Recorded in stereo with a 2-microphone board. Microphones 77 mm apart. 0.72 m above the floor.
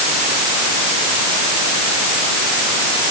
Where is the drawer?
I don't hear a drawer.